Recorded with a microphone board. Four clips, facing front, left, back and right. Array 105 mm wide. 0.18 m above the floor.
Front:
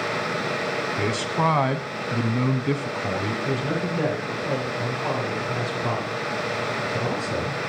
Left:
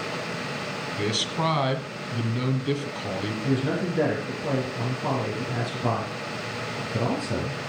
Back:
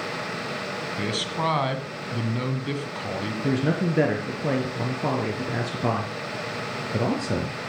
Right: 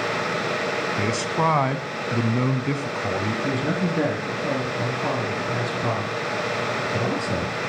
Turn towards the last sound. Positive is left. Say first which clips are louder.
# left 2 dB, back 2 dB
turn(degrees=-165)